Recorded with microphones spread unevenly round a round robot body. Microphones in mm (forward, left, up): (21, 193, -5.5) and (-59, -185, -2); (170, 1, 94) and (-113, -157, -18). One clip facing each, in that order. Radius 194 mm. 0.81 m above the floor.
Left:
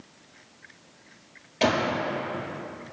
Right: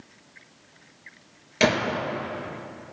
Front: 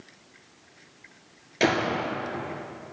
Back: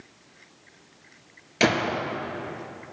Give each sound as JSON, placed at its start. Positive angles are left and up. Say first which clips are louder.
{"t": 1.6, "sound": "a gunshot", "louder": "right 1 dB, back 1 dB", "azimuth_deg": -80, "distance_m": 2.5}